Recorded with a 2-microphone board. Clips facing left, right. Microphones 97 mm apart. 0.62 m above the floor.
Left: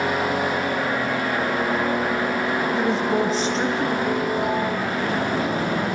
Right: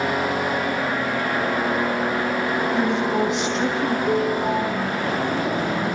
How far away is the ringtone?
About 5 m.